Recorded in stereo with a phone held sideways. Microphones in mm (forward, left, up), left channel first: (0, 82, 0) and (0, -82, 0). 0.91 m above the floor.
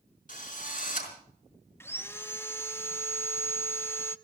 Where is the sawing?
15° left (ahead or behind), 0.6 m.